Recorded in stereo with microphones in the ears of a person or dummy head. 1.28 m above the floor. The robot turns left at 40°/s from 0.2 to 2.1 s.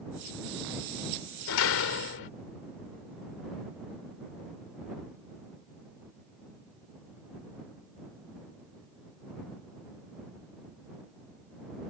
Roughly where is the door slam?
Left.